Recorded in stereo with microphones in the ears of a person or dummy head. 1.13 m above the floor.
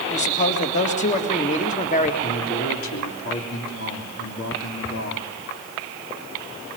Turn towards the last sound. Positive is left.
turn(degrees=75)  # may be behind; listen again after turning